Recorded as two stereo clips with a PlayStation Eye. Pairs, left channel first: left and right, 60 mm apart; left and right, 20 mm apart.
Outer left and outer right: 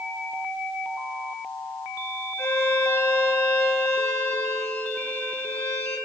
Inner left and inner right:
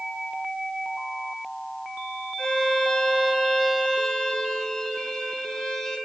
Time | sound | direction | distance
2.4 | a violin | 35° left (ahead or behind) | 6 m